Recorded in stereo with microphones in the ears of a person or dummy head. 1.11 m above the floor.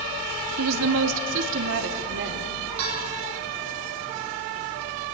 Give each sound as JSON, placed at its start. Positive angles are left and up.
{"t": 0.6, "sound": "a woman speaking", "side_deg": -65, "distance_m": 0.7}
{"t": 2.8, "sound": "a bell", "side_deg": -70, "distance_m": 3.5}